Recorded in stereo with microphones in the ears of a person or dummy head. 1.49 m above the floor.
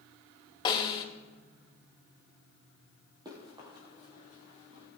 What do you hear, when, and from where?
0.7 s a snare drum: 25° left (ahead or behind), 1.9 m
3.2 s running footsteps: 20° right (ahead or behind), 3 m; by 4.8 s 35° right (ahead or behind), 4.5 m